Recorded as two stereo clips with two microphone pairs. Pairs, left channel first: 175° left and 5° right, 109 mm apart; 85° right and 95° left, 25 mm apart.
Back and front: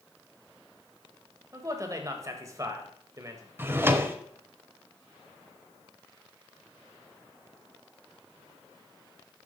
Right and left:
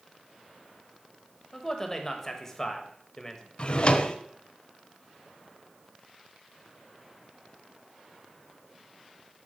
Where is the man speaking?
30° right, 1.0 m.